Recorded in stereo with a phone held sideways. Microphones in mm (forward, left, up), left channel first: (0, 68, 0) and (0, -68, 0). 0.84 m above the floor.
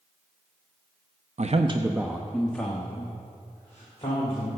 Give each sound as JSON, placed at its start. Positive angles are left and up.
{"t": 1.4, "sound": "a man speaking", "side_deg": -55, "distance_m": 0.6}